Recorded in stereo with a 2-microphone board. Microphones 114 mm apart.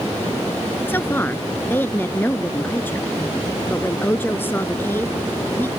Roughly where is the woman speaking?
Centre.